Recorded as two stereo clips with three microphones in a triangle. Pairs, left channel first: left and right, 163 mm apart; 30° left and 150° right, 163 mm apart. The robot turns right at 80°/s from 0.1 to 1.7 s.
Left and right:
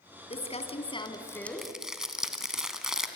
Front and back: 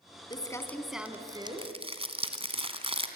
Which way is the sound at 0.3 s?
75° left.